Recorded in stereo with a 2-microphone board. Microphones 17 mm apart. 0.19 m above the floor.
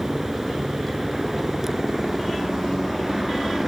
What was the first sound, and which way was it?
A helicopter, 20° right (ahead or behind).